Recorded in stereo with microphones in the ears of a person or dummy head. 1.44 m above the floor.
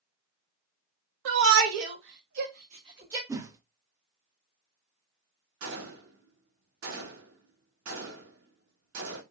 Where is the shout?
75° right (ahead or behind), 1.1 m; by 3.2 s 20° right (ahead or behind), 0.8 m.